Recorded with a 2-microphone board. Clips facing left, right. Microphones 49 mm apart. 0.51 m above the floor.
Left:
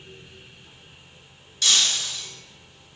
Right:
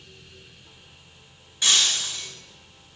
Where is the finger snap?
No finger snap in this recording.